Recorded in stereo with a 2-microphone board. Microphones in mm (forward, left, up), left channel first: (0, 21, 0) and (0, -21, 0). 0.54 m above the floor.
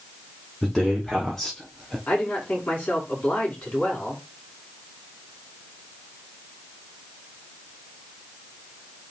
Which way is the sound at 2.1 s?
40° left (ahead or behind).